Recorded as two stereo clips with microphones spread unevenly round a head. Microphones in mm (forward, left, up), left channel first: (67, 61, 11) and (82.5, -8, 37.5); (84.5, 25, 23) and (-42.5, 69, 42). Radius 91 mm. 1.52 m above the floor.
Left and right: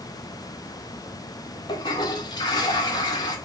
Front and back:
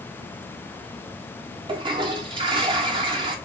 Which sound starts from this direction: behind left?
A toilet flushing, at 1.7 s.